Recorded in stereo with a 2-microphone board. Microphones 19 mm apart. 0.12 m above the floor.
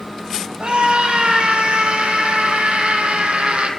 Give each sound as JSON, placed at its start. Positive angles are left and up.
{"t": 0.6, "sound": "a scream", "side_deg": -65, "distance_m": 5.0}